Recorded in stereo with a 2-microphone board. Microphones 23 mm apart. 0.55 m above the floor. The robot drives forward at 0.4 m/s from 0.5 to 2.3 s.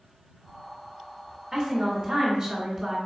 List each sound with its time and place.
1.5 s a woman speaking: 30° right (ahead or behind), 1.4 m; by 3.0 s 25° right (ahead or behind), 1.6 m